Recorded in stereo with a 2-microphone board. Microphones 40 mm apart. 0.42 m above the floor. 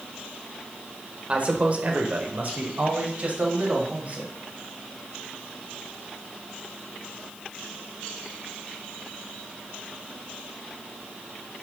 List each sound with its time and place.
1.3 s a man speaking: 35° right (ahead or behind), 1.7 m; by 4.3 s 45° right (ahead or behind), 3 m